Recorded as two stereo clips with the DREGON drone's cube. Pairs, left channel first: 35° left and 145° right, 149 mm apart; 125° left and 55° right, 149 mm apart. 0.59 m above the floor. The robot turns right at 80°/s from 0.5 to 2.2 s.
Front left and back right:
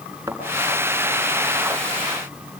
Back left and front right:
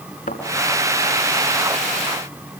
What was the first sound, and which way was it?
A thud, 140° left.